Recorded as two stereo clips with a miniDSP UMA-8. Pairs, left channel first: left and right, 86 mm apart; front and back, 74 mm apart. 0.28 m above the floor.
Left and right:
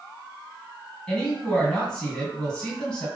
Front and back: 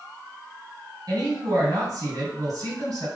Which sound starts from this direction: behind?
A woman speaking, at 1.1 s.